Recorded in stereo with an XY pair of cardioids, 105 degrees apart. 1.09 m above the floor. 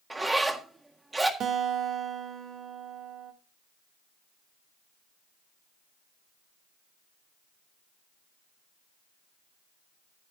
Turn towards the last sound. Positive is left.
turn(degrees=-65)